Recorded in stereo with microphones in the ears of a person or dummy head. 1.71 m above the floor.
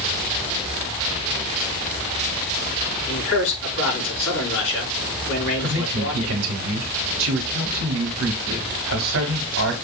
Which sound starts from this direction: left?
A man speaking, at 3.1 s.